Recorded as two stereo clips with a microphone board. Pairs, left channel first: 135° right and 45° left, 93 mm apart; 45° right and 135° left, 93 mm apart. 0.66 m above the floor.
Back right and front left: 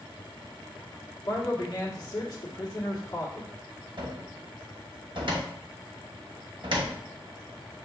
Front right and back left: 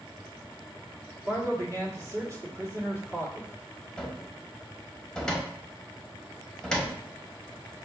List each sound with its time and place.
1.2 s a man speaking: 175° right, 1.2 m
4.0 s a cupboard door: 35° left, 0.9 m